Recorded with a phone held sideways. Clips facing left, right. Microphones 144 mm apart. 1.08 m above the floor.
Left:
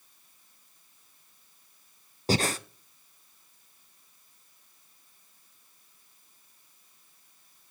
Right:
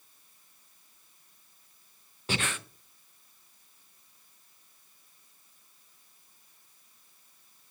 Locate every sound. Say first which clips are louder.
2.3 s breathing: left 7 dB; 40° left (ahead or behind), 0.6 m